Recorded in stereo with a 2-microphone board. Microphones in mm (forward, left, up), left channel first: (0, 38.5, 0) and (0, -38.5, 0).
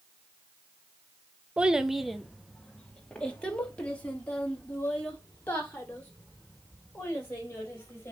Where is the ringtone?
I don't hear a ringtone.